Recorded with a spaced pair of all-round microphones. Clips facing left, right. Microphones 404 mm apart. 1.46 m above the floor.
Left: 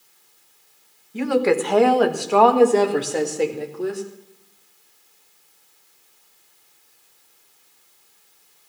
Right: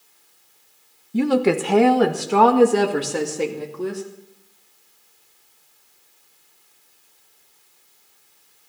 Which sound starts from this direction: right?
A woman speaking, at 1.1 s.